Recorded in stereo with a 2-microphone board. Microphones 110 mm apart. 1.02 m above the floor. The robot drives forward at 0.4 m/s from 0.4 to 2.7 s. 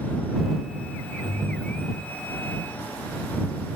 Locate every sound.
1.2 s a ringtone: 30° right (ahead or behind); by 2.2 s 25° right (ahead or behind)